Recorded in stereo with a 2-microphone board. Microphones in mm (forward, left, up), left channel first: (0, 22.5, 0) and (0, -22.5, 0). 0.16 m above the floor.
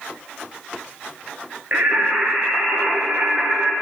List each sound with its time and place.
1.7 s singing: 50° right (ahead or behind), 1.2 m